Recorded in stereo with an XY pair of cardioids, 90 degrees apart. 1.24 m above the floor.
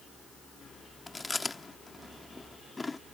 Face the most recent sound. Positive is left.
turn(degrees=25)